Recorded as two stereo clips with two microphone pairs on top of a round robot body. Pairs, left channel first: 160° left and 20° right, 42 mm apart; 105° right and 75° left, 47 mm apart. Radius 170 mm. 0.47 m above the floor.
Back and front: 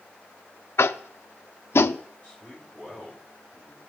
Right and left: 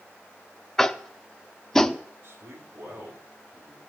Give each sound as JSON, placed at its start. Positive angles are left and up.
{"t": 0.8, "sound": "tapping", "azimuth_deg": 175, "distance_m": 0.6}
{"t": 2.2, "sound": "a man speaking", "azimuth_deg": 35, "distance_m": 4.5}